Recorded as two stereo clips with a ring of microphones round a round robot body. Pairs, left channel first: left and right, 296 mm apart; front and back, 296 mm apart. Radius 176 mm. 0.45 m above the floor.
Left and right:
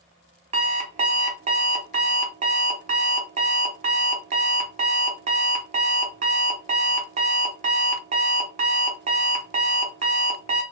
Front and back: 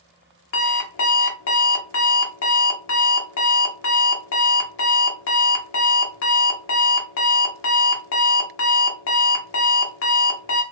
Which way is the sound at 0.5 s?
30° right.